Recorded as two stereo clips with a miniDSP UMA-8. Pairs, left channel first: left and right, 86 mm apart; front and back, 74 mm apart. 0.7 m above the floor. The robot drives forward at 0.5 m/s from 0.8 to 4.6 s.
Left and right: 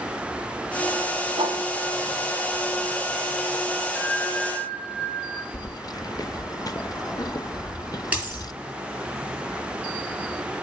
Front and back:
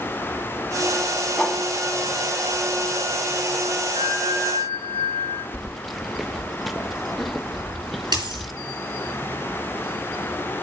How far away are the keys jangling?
About 0.5 m.